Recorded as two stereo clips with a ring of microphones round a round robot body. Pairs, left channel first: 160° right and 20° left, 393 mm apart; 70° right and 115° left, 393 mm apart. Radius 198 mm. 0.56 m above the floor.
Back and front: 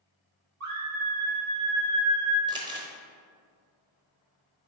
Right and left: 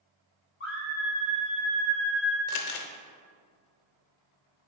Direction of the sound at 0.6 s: 15° right.